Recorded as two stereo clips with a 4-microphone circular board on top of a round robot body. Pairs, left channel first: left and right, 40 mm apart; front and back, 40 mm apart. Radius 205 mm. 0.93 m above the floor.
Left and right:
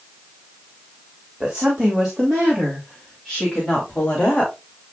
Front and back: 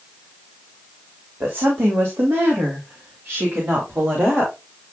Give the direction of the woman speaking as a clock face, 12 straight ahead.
5 o'clock.